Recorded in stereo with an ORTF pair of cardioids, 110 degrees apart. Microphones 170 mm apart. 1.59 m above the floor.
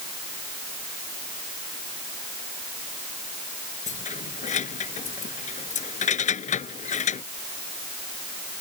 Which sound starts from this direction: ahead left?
Keys jangling, at 3.9 s.